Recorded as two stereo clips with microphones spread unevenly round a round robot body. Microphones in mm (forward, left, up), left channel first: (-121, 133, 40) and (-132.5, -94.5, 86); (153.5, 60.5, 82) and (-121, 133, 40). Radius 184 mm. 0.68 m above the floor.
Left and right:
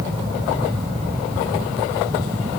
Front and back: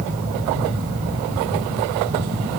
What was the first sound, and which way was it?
Only background noise.